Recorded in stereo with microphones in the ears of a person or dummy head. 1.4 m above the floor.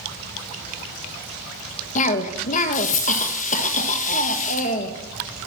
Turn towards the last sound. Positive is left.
turn(degrees=40)  # may be behind; listen again after turning